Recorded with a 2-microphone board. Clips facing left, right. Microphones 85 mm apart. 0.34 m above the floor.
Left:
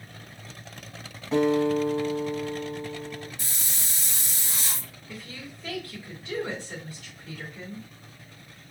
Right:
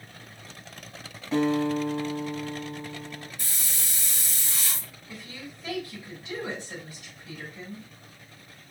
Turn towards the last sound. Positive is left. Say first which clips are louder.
# left 1 dB
turn(degrees=-15)  # may be behind; listen again after turning